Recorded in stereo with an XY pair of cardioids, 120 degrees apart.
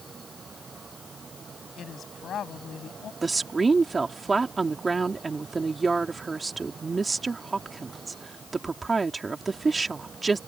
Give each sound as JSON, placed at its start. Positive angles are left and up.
{"t": 0.0, "sound": "a fan", "azimuth_deg": -30}
{"t": 1.8, "sound": "a woman speaking", "azimuth_deg": 50}
{"t": 3.2, "sound": "a woman speaking", "azimuth_deg": -25}